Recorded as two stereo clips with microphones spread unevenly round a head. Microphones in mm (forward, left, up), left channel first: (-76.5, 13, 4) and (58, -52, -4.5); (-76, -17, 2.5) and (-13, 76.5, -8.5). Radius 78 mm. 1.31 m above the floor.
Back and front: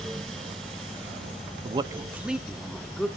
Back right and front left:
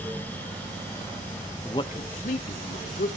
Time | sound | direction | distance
1.6 | a man speaking | 50° right | 0.6 m